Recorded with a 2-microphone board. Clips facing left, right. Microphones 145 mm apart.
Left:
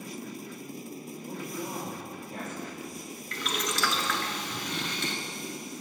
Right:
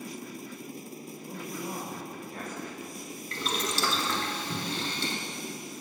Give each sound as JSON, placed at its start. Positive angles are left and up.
{"t": 1.2, "sound": "a man speaking", "side_deg": 20, "distance_m": 3.0}
{"t": 3.3, "sound": "boiling", "side_deg": -30, "distance_m": 0.8}